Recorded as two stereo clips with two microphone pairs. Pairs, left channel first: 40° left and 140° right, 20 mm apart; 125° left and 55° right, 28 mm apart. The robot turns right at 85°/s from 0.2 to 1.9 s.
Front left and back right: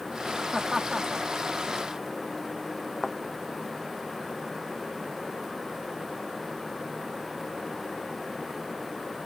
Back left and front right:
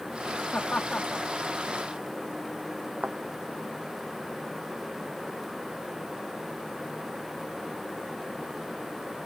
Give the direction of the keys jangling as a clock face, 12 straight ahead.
I don't hear keys jangling.